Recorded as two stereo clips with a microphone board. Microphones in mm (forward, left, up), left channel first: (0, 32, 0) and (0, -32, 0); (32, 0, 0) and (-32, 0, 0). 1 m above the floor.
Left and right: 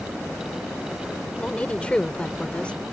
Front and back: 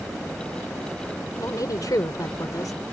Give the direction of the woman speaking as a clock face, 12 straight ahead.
11 o'clock.